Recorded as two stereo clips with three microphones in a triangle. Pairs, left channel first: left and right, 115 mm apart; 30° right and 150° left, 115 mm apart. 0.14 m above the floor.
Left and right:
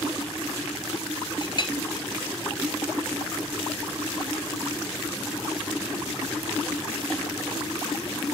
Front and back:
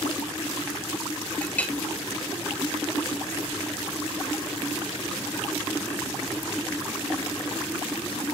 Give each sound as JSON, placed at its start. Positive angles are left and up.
{"t": 1.4, "sound": "a clink", "azimuth_deg": 45, "distance_m": 1.4}